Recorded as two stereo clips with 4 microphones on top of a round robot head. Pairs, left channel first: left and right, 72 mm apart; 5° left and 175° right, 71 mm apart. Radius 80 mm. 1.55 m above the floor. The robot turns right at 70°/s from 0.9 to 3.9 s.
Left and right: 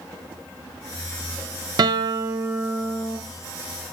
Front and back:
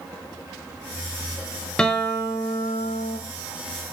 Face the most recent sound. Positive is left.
turn(degrees=75)